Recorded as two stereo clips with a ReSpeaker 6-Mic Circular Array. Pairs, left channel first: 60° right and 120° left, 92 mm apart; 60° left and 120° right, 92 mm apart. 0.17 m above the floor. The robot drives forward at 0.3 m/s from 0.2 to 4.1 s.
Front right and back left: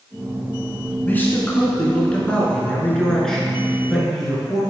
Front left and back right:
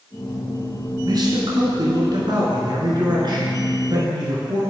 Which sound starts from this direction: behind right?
A man speaking, at 1.1 s.